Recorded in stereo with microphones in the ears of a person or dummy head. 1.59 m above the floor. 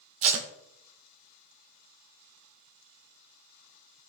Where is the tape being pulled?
40° right (ahead or behind), 1.1 m.